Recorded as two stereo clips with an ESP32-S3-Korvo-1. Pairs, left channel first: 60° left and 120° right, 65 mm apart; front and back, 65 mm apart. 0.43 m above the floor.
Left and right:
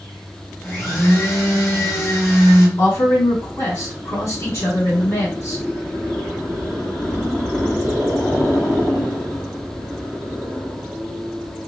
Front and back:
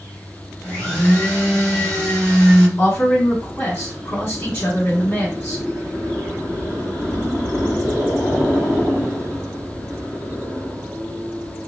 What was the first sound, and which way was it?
A blender, 70° left.